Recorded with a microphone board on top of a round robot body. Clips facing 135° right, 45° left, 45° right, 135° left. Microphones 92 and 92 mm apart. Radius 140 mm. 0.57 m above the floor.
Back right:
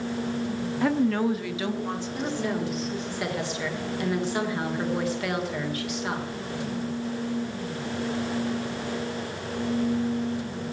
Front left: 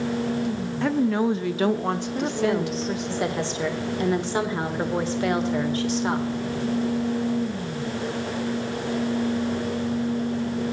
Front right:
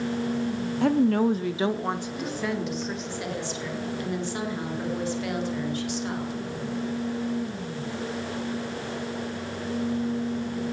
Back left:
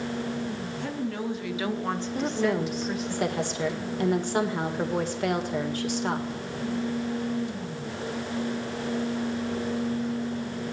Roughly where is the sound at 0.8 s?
Ahead right.